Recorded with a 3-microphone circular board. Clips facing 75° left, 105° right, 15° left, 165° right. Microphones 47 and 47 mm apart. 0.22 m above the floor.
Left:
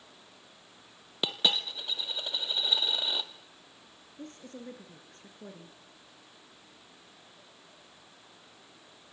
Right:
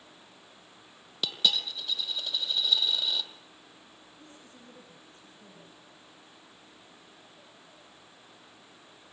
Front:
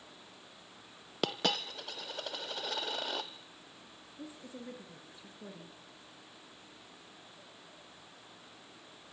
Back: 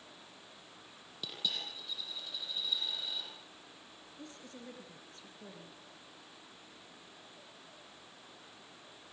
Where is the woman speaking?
95° left, 3.5 m.